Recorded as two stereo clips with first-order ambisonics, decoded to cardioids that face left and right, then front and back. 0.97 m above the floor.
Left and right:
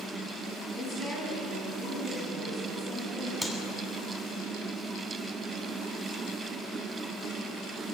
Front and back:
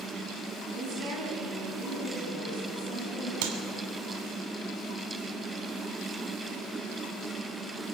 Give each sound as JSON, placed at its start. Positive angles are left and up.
{"t": 0.7, "sound": "a woman speaking", "azimuth_deg": 155, "distance_m": 8.0}
{"t": 3.4, "sound": "a clap", "azimuth_deg": 175, "distance_m": 3.0}